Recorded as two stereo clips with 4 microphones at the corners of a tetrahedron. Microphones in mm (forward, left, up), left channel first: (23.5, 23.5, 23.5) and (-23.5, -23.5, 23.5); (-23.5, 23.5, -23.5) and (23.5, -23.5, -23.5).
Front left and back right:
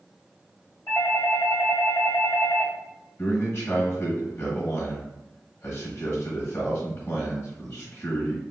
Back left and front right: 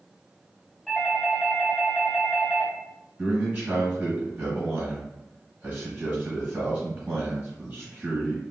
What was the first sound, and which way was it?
A doorbell, 60° left.